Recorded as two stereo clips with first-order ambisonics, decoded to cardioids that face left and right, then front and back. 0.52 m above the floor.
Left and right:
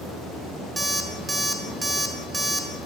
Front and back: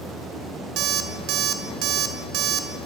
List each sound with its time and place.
0.8 s an alarm clock: 170° right, 0.8 m